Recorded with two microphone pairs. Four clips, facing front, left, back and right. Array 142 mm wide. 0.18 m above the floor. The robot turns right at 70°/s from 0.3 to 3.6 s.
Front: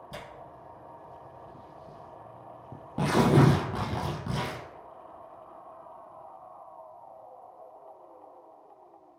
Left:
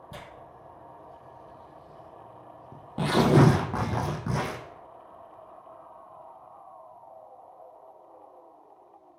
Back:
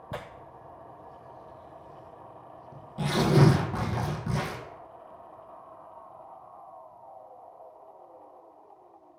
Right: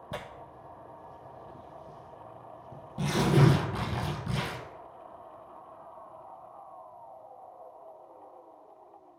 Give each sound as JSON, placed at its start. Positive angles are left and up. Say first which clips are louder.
{"t": 0.1, "sound": "tearing paper", "louder": "right 5 dB, back 5 dB", "azimuth_deg": -140, "distance_m": 1.2}